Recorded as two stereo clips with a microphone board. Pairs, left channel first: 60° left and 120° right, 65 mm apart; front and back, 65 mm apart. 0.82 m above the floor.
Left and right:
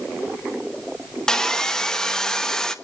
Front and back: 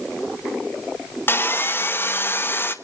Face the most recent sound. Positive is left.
turn(degrees=-15)